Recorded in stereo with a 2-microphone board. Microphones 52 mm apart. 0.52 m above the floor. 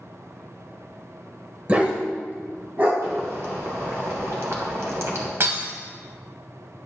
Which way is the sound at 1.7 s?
30° right (ahead or behind).